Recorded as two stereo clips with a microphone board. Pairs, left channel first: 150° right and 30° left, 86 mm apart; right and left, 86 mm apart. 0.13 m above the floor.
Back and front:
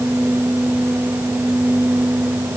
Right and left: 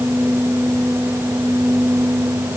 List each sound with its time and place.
Only background noise.